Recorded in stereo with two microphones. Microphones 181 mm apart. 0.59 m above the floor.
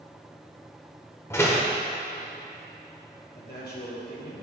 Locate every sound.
1.3 s a door slam: 15° left (ahead or behind), 1.1 m
3.4 s a man speaking: 60° left (ahead or behind), 2 m